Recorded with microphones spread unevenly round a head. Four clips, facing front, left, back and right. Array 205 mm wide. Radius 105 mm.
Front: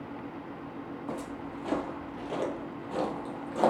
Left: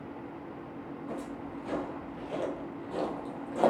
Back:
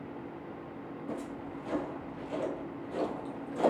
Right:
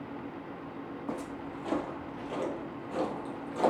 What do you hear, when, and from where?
1.1 s footsteps: 50° right, 1.8 m; by 3.7 s 40° left, 1.9 m